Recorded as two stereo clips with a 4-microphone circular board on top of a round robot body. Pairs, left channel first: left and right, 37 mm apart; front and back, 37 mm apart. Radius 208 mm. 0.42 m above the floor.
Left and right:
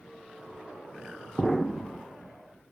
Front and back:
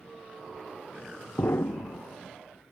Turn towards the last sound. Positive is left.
turn(degrees=5)